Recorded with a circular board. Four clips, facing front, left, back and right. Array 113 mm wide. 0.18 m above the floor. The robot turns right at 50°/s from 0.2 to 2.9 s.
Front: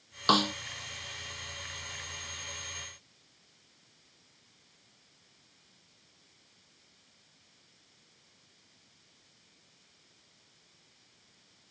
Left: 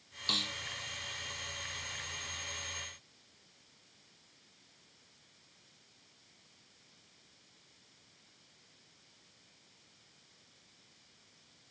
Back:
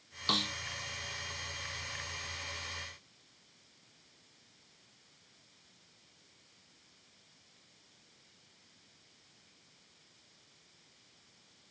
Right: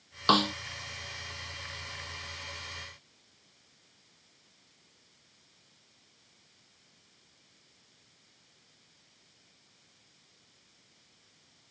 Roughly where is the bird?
No bird in this recording.